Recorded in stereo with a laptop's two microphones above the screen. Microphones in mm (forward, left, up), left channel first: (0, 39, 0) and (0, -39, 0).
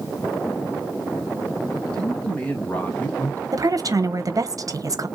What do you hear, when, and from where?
1.9 s a man speaking: 10° left (ahead or behind), 2 m; by 3.4 s 25° left (ahead or behind), 0.6 m
3.5 s a woman speaking: 50° right (ahead or behind), 0.8 m